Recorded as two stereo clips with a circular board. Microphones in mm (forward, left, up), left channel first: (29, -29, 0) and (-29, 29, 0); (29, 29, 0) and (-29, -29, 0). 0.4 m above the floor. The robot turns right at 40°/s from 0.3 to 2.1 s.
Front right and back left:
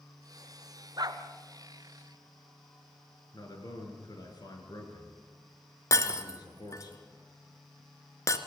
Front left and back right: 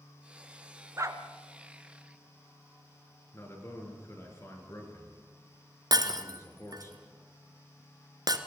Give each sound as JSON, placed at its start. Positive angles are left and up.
{"t": 1.0, "sound": "a dog barking", "azimuth_deg": 170, "distance_m": 1.5}
{"t": 3.3, "sound": "a man speaking", "azimuth_deg": -10, "distance_m": 5.0}
{"t": 5.9, "sound": "breaking glass", "azimuth_deg": -95, "distance_m": 1.5}